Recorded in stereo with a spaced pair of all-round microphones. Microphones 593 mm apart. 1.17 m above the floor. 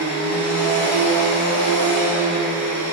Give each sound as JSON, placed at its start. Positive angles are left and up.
{"t": 0.0, "sound": "a machine running", "side_deg": -10, "distance_m": 2.0}